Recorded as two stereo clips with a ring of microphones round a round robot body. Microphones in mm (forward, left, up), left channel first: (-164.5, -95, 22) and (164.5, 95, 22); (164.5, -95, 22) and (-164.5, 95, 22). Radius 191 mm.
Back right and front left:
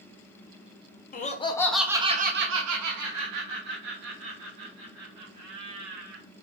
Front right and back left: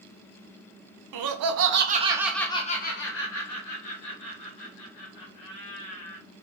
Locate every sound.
1.1 s laughter: 150° left, 0.8 m; by 6.2 s straight ahead, 2 m